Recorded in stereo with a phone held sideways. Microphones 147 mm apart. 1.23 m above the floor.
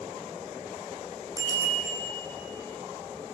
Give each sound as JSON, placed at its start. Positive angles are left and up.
{"t": 1.4, "sound": "a bicycle bell", "side_deg": -25, "distance_m": 8.0}